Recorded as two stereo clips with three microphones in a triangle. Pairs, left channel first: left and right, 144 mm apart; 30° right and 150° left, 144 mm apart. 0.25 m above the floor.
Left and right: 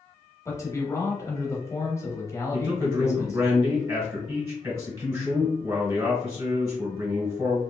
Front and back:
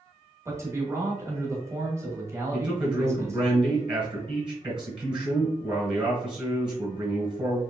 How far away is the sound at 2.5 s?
About 1.7 m.